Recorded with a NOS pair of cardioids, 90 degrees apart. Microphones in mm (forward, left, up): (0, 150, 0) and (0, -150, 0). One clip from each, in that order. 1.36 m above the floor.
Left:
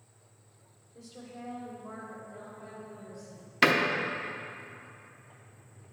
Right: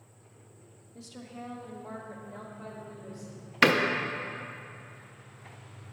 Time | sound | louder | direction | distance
0.9 | a woman speaking | right 2 dB | 35° right | 1.0 m
3.6 | a door slam | right 1 dB | 10° right | 0.6 m